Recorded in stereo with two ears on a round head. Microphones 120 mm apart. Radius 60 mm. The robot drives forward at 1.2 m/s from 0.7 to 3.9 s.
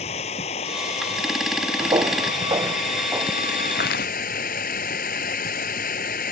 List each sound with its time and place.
0.0 s running water: 45° left (ahead or behind); by 6.3 s 65° left (ahead or behind)
1.8 s footsteps: 30° right (ahead or behind); by 3.4 s 20° right (ahead or behind)
3.8 s footsteps: 75° left (ahead or behind); by 4.1 s 80° left